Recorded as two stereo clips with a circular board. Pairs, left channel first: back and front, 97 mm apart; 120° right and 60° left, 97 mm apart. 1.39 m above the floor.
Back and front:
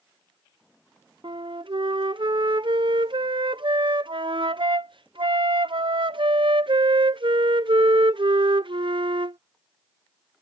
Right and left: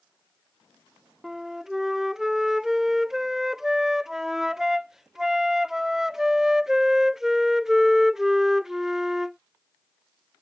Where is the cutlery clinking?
I don't hear cutlery clinking.